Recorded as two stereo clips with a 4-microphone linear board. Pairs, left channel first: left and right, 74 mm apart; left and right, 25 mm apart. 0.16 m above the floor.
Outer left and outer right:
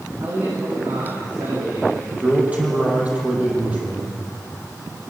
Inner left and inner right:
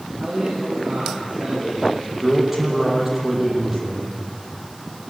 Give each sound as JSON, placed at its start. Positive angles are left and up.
{"t": 0.2, "sound": "a man speaking", "side_deg": -55, "distance_m": 10.0}
{"t": 2.1, "sound": "a man speaking", "side_deg": -20, "distance_m": 5.5}